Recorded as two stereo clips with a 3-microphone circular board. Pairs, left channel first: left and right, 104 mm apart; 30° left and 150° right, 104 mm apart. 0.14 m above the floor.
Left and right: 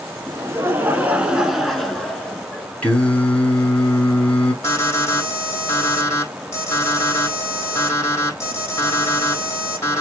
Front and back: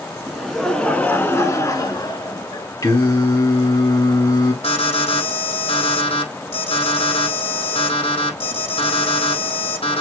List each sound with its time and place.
0.3 s laughter: 65° right, 1.5 m; by 2.7 s 15° left, 2.0 m
2.8 s singing: 20° left, 1.9 m
4.6 s an alarm: 30° left, 4 m